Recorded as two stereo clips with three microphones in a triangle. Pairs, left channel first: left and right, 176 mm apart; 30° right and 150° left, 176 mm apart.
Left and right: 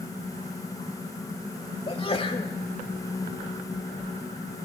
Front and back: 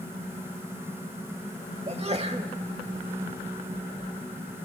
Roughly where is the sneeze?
Behind left.